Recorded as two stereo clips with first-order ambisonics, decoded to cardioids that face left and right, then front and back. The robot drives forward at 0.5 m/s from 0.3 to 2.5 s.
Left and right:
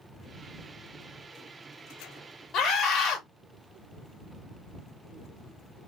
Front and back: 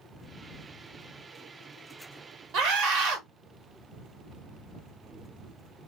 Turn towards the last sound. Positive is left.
turn(degrees=145)